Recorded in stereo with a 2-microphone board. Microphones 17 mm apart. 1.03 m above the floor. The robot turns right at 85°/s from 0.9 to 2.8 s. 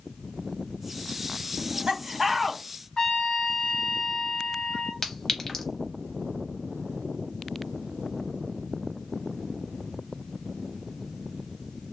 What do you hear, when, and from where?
1.6 s laughter: 80° right, 0.7 m; by 2.6 s 10° left, 0.7 m
3.0 s a trumpet: 45° left (ahead or behind), 0.8 m
5.0 s a clink: 25° left (ahead or behind), 0.7 m